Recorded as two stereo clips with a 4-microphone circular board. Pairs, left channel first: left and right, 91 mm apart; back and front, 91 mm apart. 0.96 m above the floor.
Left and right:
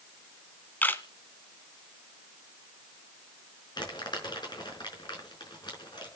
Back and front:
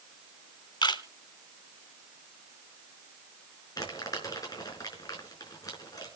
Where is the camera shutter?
155° left, 1.4 m.